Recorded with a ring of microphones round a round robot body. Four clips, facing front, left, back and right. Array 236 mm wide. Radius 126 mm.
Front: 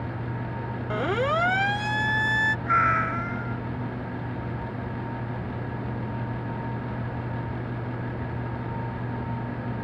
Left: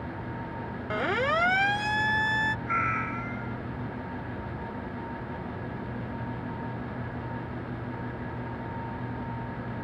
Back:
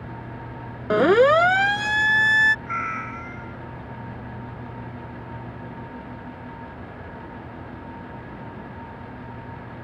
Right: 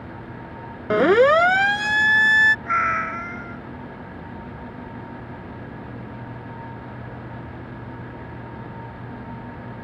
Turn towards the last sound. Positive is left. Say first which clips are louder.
# right 6 dB, front 6 dB
turn(degrees=-55)